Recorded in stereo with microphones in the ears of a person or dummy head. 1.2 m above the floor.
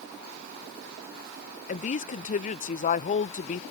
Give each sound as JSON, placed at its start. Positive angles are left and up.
{"t": 1.7, "sound": "a woman speaking", "side_deg": 40}